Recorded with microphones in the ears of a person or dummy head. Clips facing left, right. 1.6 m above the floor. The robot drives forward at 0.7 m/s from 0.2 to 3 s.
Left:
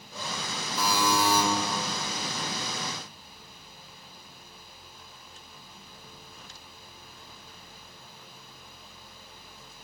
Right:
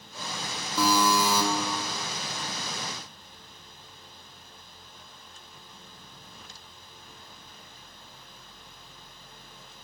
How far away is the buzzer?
About 2 m.